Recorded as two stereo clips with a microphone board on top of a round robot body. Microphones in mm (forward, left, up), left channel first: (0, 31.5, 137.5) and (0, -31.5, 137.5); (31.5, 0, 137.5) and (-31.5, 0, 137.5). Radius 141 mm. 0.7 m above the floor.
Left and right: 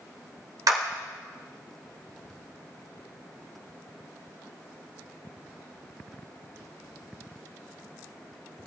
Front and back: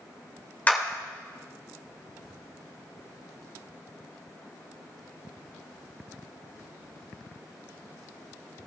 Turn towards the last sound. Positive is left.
turn(degrees=-65)